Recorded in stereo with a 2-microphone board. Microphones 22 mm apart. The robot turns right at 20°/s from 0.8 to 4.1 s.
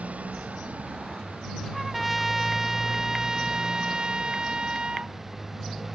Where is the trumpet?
175° right; by 5.2 s 130° right.